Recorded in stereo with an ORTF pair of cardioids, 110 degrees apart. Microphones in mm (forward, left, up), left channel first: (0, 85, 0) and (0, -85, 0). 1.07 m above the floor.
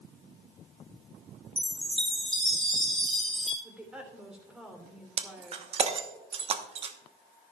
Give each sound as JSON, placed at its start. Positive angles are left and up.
{"t": 1.6, "sound": "a chime", "azimuth_deg": 0, "distance_m": 3.0}
{"t": 3.6, "sound": "a woman speaking", "azimuth_deg": -5, "distance_m": 3.0}
{"t": 5.2, "sound": "breaking glass", "azimuth_deg": -35, "distance_m": 1.1}